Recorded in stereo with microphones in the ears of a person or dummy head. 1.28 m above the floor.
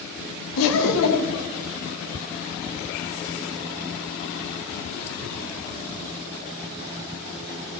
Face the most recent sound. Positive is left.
turn(degrees=80)